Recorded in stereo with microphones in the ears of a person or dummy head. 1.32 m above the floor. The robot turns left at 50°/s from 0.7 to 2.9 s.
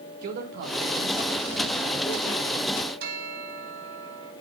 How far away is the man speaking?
About 3 m.